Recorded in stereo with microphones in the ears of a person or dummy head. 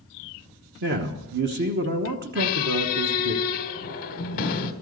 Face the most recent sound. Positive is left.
turn(degrees=45)  # may be behind; listen again after turning